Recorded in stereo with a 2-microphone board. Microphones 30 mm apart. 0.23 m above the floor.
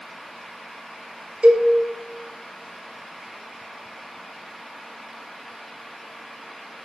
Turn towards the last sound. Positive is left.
turn(degrees=-45)  # may be behind; listen again after turning